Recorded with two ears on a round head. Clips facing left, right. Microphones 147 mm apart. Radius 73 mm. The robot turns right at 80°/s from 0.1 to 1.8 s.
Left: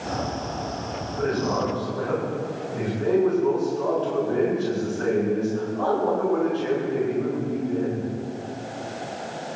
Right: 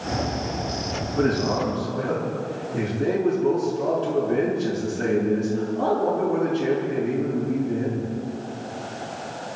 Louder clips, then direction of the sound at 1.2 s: Right 2 dB; 75° right.